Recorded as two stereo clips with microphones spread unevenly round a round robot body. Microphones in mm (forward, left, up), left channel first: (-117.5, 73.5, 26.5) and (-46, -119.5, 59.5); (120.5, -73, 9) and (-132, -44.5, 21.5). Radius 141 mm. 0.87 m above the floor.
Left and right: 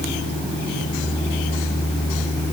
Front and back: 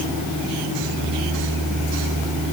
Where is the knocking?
I don't hear knocking.